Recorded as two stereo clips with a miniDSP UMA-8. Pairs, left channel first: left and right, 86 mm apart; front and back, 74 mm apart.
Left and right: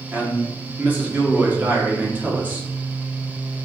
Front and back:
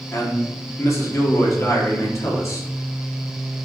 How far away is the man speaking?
About 1.1 m.